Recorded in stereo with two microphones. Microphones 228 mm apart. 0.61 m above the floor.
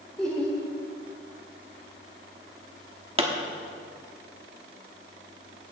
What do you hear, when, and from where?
0.2 s laughter: 5° left (ahead or behind), 1.6 m
3.2 s a pop: 25° right (ahead or behind), 1.0 m